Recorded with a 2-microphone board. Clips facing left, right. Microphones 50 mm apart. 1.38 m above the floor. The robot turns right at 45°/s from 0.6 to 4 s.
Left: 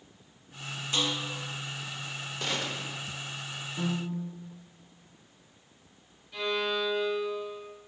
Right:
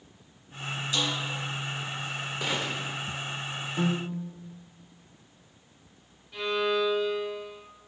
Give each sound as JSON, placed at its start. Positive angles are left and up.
{"t": 0.9, "sound": "a snare drum", "side_deg": 45, "distance_m": 4.0}
{"t": 2.4, "sound": "a gunshot", "side_deg": -10, "distance_m": 0.8}
{"t": 3.8, "sound": "a piano", "side_deg": -45, "distance_m": 1.0}
{"t": 6.3, "sound": "a violin", "side_deg": -10, "distance_m": 4.5}